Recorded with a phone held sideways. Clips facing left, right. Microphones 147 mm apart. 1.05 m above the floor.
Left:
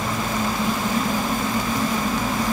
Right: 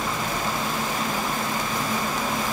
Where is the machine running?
85° left, 5 m.